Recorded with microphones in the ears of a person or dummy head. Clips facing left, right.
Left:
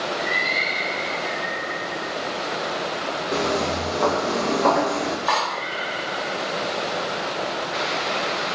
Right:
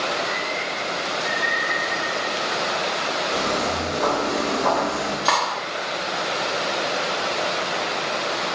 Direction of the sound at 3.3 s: 50° left (ahead or behind).